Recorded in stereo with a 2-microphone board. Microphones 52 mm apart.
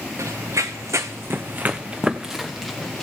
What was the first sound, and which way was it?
Running footsteps, 75° right (ahead or behind).